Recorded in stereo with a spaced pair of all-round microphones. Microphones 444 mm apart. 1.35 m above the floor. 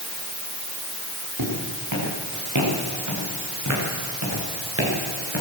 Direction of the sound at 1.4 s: 50° right (ahead or behind).